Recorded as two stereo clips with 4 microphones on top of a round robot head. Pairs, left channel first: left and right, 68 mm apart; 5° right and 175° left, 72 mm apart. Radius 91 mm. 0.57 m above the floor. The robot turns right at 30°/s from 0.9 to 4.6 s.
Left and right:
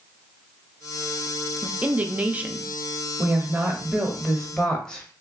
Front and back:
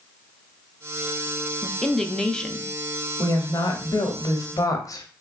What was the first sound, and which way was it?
A woman speaking, 90° right.